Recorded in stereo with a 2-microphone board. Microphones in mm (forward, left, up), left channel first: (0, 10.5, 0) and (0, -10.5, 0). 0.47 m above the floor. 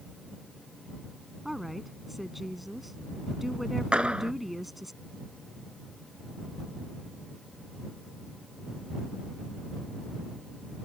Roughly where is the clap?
Right.